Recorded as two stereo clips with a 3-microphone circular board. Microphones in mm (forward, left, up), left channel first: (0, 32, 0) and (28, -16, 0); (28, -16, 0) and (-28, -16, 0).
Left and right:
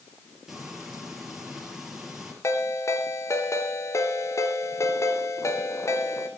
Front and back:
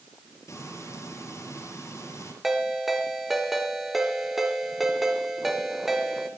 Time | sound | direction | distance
0.5 | frying | 20° left | 6 m
2.4 | a ringtone | 95° left | 2.5 m